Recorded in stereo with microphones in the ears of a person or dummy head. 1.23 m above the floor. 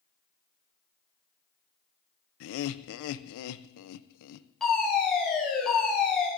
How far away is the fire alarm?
About 4 m.